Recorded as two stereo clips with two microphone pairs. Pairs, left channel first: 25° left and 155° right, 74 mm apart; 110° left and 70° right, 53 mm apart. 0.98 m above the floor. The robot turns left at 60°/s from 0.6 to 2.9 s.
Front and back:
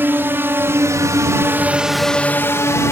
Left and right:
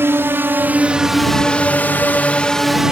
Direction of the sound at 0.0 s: 100° right.